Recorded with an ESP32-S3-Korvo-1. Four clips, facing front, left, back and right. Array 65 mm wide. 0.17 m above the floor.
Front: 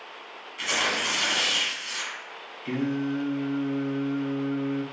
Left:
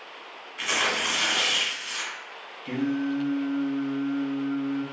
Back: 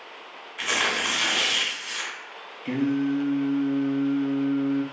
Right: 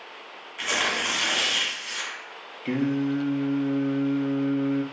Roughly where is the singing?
Right.